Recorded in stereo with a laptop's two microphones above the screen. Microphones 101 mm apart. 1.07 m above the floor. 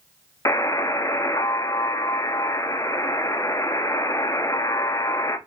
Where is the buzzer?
30° left (ahead or behind), 0.6 m.